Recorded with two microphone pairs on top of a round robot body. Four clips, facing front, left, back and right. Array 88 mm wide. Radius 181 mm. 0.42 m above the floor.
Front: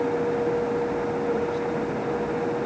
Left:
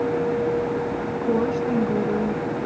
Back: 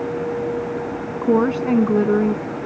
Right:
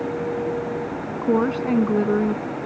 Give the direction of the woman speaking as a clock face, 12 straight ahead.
5 o'clock.